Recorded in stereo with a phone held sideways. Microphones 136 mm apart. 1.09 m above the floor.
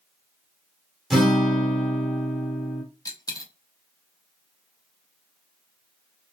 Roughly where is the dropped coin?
Left.